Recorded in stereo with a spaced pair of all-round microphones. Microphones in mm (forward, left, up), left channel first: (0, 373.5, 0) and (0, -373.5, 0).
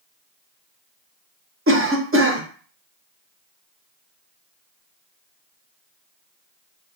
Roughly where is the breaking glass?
No breaking glass in this recording.